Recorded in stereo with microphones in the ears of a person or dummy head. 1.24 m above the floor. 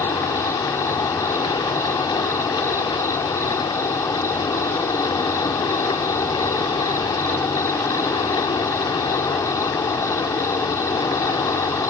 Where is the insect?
25° left (ahead or behind).